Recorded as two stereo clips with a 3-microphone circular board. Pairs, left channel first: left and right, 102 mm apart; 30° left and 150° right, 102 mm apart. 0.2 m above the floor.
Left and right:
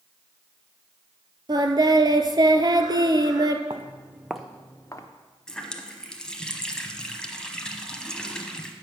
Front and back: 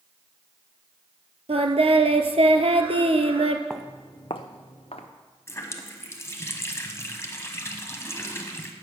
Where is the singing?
140° right, 0.7 m.